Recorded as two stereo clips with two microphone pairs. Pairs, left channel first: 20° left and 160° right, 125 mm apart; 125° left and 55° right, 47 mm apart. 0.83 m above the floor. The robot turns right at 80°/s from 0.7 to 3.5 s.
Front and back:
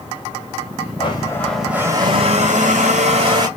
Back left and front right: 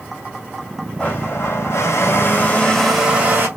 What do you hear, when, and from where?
1.0 s a blender: 65° left, 1.8 m; by 3.5 s 95° right, 1.8 m